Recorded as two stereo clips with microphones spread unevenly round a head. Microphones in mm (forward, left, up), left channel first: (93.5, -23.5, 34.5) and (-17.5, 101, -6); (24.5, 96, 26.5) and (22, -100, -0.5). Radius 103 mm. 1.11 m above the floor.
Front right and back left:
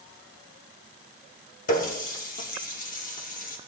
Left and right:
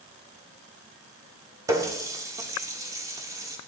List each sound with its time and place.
1.7 s a running tap: 15° right, 1.6 m